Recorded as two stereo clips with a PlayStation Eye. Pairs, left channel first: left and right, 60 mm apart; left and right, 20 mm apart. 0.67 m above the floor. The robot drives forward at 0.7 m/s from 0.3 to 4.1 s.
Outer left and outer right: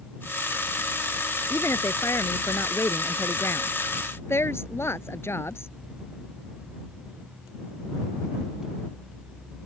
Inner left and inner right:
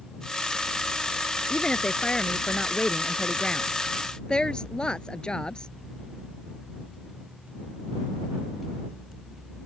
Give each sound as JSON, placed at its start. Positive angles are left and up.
{"t": 1.5, "sound": "a woman speaking", "side_deg": 50}